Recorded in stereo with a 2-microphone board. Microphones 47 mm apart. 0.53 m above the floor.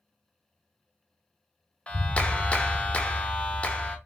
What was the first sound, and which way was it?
A clap, 25° left (ahead or behind).